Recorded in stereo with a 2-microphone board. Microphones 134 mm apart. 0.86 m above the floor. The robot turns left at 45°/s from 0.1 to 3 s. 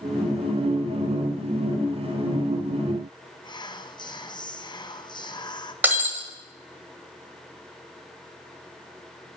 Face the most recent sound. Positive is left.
turn(degrees=-15)  # may be behind; listen again after turning